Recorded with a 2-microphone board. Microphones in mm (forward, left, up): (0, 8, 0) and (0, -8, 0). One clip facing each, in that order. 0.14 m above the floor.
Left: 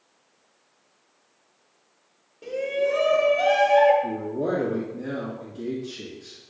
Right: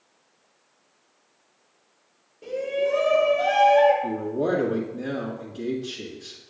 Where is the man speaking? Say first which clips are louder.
Right 2 dB; 35° right (ahead or behind), 1.8 m.